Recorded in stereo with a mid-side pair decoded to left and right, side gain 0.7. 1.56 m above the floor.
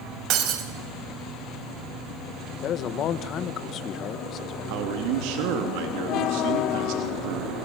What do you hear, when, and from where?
0.3 s breaking glass: 55° right, 4.5 m
2.6 s a man speaking: 45° left, 2.0 m
4.7 s a man speaking: 70° right, 3 m